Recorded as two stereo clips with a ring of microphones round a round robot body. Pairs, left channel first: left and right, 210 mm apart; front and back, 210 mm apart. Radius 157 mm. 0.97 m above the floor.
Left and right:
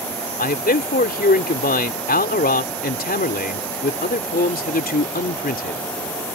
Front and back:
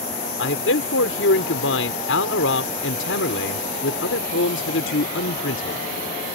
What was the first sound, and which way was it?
A man speaking, 45° left.